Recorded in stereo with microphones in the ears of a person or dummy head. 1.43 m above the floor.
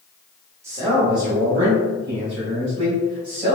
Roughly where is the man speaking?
Centre.